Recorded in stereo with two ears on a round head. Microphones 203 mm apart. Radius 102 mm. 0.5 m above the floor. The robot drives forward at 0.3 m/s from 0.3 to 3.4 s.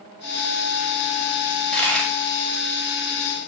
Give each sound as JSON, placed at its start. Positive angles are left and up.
{"t": 1.5, "sound": "a dropped coin", "side_deg": 5, "distance_m": 0.7}